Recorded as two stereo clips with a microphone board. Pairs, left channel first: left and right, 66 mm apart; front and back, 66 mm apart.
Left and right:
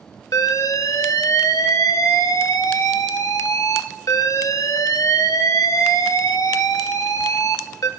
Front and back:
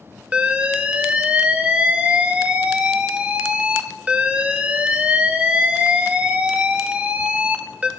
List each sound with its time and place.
0.3 s an alarm: 110° left, 0.8 m